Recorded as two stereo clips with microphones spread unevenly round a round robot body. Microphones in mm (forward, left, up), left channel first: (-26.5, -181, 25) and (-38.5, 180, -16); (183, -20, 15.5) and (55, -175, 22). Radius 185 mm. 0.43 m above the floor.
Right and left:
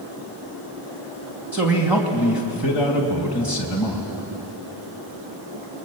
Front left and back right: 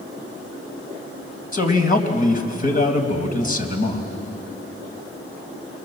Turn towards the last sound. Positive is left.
turn(degrees=10)